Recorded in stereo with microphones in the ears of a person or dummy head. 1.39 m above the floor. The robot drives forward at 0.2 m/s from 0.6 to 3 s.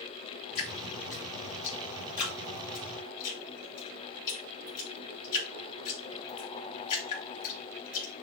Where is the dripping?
45° left (ahead or behind), 3.5 m; by 8.2 s 50° left (ahead or behind), 3.5 m.